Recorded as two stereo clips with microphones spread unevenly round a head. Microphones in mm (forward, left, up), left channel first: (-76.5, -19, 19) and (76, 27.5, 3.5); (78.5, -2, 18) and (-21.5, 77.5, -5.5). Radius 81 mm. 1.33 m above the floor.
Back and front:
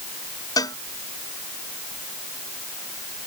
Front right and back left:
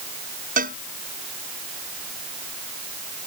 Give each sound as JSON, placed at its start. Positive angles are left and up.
{"t": 0.6, "sound": "a cowbell", "azimuth_deg": 130}